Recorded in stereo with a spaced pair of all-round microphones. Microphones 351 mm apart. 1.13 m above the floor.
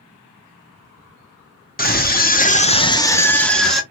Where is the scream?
25° left (ahead or behind), 0.7 m; by 3.8 s centre (ahead or behind), 1.0 m.